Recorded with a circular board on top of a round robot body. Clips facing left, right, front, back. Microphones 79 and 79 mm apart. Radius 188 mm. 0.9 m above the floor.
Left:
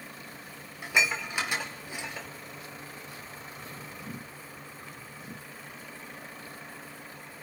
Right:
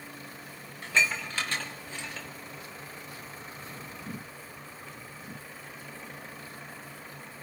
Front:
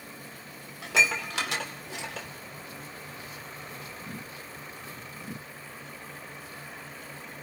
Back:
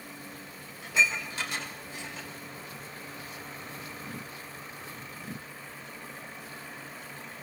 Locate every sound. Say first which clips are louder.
0.8 s dishes clattering: even, front 2 dB; 10° left, 2 m